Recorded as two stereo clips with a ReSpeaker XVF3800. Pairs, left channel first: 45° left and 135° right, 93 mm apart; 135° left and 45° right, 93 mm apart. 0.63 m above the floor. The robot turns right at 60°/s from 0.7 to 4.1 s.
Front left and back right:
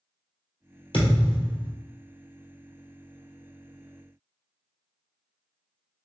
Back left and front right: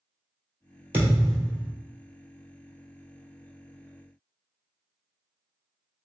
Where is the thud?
20° left, 1.9 m; by 1.7 s 70° left, 1.9 m.